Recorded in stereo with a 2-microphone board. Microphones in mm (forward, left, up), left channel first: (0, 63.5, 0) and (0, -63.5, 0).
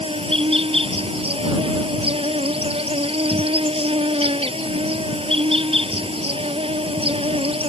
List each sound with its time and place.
0.0 s an insect: 45° right (ahead or behind)